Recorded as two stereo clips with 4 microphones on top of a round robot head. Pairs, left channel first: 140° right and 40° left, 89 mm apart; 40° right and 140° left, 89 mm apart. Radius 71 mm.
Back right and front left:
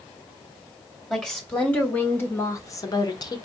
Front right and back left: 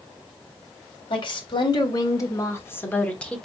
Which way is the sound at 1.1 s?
55° right.